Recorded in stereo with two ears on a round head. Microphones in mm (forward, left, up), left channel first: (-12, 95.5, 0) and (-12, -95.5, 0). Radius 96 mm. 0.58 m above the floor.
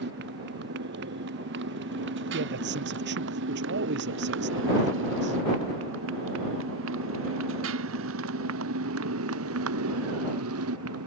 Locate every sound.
0.0 s a motorcycle: 55° right (ahead or behind); by 11.1 s 75° right (ahead or behind)
2.3 s a man speaking: 55° right (ahead or behind)